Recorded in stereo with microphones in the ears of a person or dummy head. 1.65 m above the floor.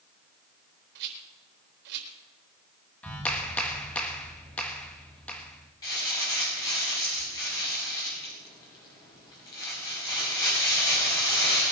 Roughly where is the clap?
Centre.